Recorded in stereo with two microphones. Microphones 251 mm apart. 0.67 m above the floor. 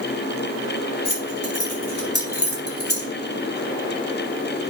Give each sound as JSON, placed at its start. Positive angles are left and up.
{"t": 1.1, "sound": "keys jangling", "side_deg": 80, "distance_m": 4.5}